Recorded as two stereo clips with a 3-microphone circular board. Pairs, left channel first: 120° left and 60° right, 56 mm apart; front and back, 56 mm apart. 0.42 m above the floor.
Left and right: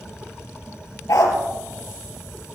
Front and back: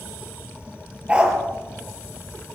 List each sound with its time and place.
1.1 s a dog barking: 110° left, 3 m